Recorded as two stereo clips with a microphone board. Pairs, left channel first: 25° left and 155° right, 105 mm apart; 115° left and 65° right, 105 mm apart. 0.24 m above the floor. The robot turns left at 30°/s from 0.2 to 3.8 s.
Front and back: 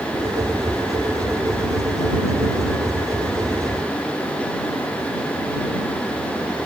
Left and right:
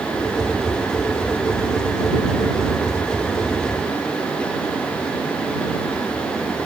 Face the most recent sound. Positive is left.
No sound to turn to.